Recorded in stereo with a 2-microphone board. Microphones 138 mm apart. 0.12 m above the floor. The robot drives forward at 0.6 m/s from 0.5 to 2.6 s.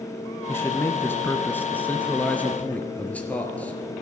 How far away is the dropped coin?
I don't hear a dropped coin.